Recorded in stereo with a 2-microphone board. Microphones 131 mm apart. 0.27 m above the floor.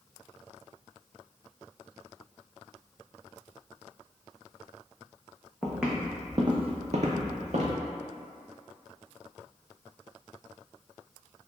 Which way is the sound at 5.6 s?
Centre (ahead or behind).